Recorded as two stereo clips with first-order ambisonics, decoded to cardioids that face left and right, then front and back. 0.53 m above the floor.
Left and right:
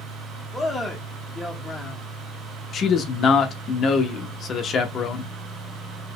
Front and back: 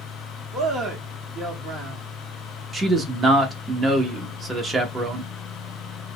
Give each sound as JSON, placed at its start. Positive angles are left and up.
{"t": 0.5, "sound": "a man speaking", "azimuth_deg": 170, "distance_m": 1.1}
{"t": 2.7, "sound": "a man speaking", "azimuth_deg": 120, "distance_m": 0.7}